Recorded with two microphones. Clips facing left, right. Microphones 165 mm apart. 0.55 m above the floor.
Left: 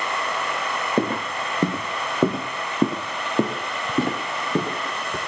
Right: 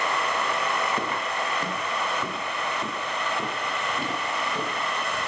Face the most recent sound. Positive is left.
turn(degrees=70)  # may be behind; listen again after turning